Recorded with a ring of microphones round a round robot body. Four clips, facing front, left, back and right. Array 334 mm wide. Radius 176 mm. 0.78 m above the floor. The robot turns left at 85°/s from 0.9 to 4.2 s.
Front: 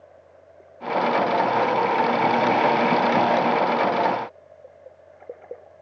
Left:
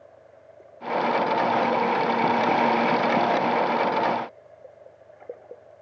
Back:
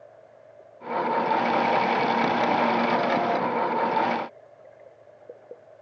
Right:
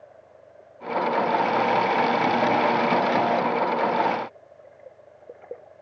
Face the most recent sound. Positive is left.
No sound to turn to.